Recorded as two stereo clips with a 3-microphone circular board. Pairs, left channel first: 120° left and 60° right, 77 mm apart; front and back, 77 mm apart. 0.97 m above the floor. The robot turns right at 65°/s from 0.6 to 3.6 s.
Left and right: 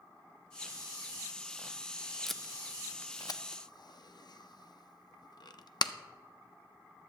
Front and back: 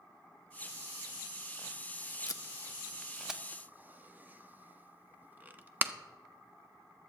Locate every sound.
2.3 s tape being pulled: 30° left, 0.5 m; by 5.9 s 115° left, 0.5 m